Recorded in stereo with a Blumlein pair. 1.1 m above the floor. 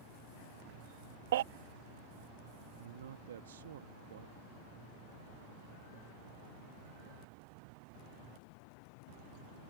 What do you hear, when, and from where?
1.3 s a baby crying: 60° right
2.8 s a man speaking: 65° right